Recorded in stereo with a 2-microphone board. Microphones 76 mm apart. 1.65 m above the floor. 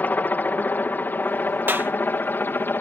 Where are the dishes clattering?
I don't hear dishes clattering.